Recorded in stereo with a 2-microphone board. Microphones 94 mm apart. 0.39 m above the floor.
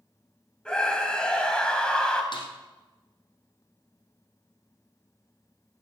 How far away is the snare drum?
About 3.5 m.